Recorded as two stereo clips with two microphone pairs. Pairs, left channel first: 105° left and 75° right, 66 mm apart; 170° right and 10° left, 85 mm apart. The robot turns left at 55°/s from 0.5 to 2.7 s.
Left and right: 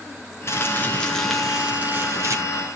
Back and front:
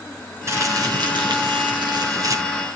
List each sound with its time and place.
0.5 s crumpling: 65° left, 4 m; by 2.4 s 40° right, 4 m